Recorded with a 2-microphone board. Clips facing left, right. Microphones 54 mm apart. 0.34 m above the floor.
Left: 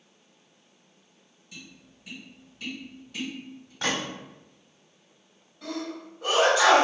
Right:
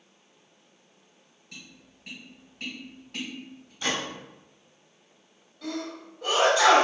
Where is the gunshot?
65° left (ahead or behind), 1.0 m.